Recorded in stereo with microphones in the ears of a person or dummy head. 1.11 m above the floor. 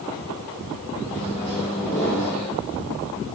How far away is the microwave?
About 1.3 m.